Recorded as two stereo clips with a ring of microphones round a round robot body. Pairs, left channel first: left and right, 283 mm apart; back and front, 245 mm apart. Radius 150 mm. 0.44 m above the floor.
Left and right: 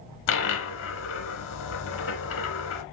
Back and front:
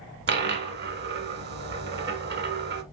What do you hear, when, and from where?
0.3 s a dropped coin: 45° left, 1.1 m